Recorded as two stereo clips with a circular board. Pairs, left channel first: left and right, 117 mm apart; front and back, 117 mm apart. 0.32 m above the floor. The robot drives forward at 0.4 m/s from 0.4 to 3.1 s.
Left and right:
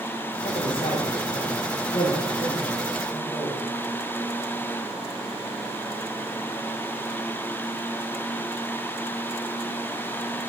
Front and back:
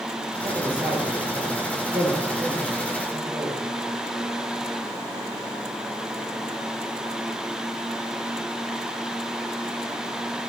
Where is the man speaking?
125° left, 7 m; by 3.7 s 130° left, 8 m.